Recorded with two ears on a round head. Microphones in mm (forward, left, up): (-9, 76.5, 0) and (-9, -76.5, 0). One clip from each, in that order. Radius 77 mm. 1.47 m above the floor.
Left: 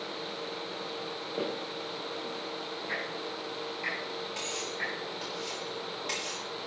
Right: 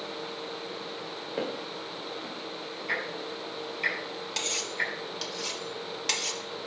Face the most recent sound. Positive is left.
turn(degrees=-70)  # may be behind; listen again after turning